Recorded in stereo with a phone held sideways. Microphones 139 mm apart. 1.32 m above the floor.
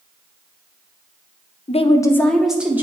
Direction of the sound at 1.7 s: 50° left (ahead or behind).